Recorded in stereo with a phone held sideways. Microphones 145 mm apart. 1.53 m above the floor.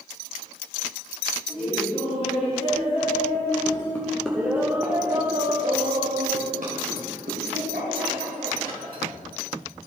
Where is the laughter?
45° left (ahead or behind), 2 m; by 9.2 s 85° right, 2.5 m.